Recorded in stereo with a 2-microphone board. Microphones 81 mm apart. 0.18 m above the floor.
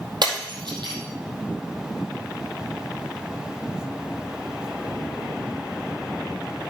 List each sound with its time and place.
0.2 s breaking glass: 65° right (ahead or behind), 4 m